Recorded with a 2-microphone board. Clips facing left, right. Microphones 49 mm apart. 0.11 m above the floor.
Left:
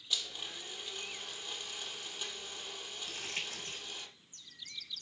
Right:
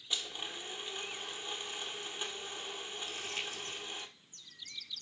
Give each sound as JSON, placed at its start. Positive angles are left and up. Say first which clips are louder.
{"t": 0.1, "sound": "a blender", "louder": "even", "side_deg": -25, "distance_m": 1.3}
{"t": 3.1, "sound": "crumpling", "louder": "left 1 dB", "side_deg": 50, "distance_m": 8.0}